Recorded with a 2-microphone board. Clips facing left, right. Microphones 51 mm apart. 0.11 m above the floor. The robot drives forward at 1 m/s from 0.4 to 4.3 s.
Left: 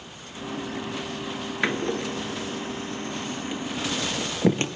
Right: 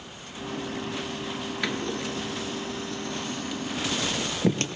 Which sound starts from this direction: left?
A door slam, at 1.6 s.